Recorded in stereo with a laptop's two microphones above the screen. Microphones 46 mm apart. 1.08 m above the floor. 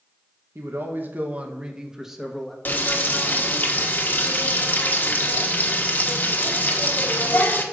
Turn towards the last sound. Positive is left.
turn(degrees=40)  # may be behind; listen again after turning